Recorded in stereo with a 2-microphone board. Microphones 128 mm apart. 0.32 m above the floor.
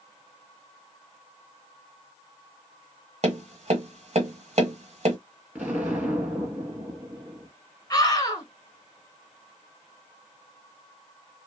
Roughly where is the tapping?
Right.